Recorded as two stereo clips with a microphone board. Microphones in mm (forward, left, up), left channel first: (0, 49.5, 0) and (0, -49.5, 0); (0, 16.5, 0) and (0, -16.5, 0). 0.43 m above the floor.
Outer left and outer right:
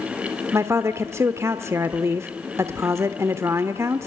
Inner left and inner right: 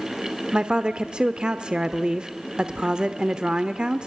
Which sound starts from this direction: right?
A woman speaking, at 0.5 s.